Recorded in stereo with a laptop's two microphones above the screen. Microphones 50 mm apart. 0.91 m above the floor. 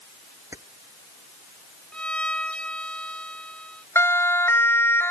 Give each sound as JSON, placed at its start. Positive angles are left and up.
{"t": 0.5, "sound": "keys jangling", "side_deg": -75}
{"t": 1.9, "sound": "a violin", "side_deg": 20}
{"t": 4.0, "sound": "a siren", "side_deg": 60}